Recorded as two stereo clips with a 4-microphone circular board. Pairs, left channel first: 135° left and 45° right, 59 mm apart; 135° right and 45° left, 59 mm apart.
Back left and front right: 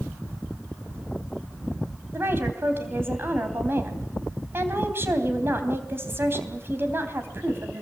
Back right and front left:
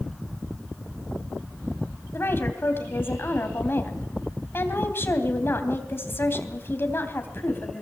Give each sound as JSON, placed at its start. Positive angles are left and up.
{"t": 2.1, "sound": "a woman speaking", "azimuth_deg": -90, "distance_m": 3.0}